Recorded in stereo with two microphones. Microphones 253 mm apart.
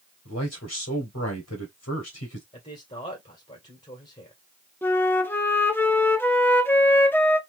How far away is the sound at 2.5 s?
About 2 m.